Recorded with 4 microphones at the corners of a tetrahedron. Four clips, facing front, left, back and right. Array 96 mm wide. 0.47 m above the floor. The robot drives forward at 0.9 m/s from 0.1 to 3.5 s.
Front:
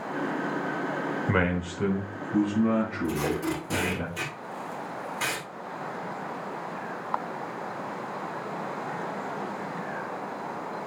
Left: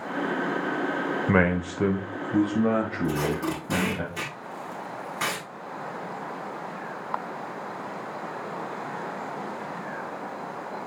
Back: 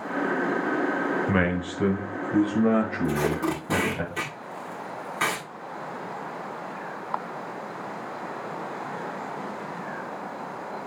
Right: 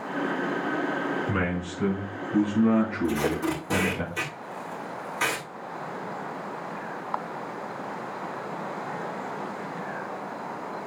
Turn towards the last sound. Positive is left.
turn(degrees=165)